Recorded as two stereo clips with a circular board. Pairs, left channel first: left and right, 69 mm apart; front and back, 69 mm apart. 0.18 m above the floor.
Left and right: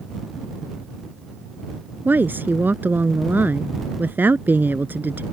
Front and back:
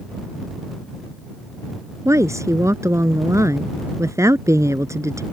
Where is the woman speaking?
145° right.